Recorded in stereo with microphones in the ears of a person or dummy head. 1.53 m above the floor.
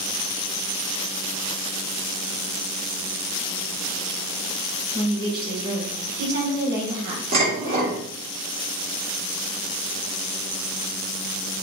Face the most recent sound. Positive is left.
turn(degrees=-45)  # may be behind; listen again after turning